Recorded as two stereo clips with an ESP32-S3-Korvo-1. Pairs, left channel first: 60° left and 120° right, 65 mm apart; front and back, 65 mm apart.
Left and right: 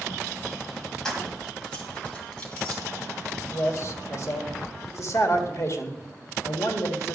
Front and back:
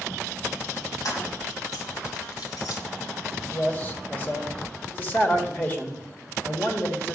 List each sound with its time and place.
1.1 s keys jangling: 20° right, 1.9 m; by 2.8 s 10° right, 3 m
3.5 s a man speaking: 50° left, 1.7 m